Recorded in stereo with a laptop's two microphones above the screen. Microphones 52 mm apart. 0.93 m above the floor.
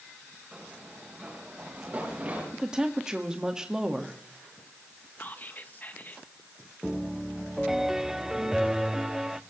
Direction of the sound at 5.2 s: 40° left (ahead or behind).